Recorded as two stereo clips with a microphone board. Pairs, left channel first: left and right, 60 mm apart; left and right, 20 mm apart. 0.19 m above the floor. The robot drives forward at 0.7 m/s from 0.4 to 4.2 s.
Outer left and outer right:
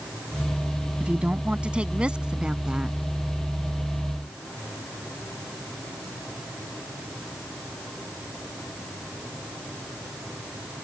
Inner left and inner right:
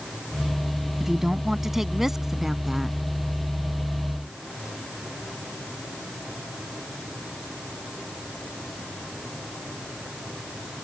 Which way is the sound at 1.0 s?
20° right (ahead or behind).